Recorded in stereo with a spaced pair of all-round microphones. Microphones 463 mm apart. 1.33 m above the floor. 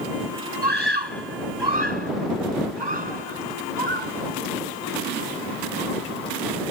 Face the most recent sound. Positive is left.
turn(degrees=-60)  # may be behind; listen again after turning